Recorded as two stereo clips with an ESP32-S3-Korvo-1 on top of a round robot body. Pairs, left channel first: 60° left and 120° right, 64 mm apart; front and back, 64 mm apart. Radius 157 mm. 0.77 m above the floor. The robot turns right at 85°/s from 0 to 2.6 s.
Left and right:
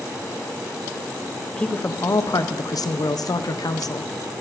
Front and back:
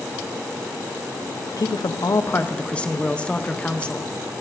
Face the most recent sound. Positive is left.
turn(degrees=70)